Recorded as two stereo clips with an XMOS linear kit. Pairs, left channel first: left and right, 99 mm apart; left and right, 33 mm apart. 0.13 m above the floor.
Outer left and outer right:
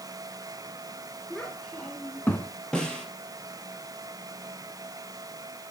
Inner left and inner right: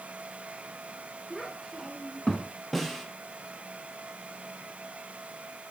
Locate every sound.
1.3 s a child speaking: 5° left (ahead or behind), 1.3 m; by 2.5 s 15° left (ahead or behind), 1.0 m
2.7 s a snare drum: 5° left (ahead or behind), 2.5 m